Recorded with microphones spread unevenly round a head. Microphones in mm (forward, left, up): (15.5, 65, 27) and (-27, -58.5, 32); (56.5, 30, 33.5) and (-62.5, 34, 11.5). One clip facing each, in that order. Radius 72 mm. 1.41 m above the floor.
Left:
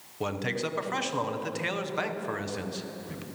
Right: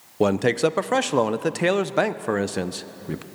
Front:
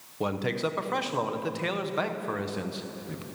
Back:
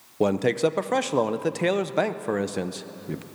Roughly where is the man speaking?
Behind right.